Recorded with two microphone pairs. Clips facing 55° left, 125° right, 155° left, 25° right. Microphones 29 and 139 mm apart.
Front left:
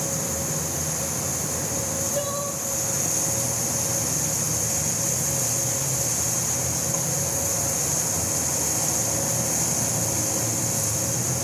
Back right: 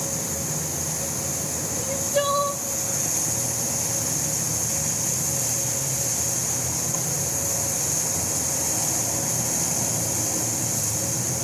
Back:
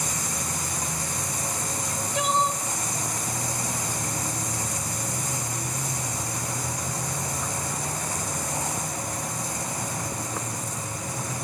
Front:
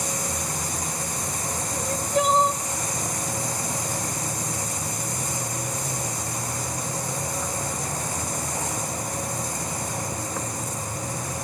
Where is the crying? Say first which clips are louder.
Back right 6 dB, front 8 dB; 75° right, 1.1 m.